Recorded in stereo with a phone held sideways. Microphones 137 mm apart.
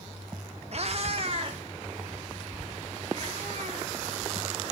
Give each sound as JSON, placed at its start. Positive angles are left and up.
{"t": 0.7, "sound": "a cat meowing", "side_deg": -50, "distance_m": 0.7}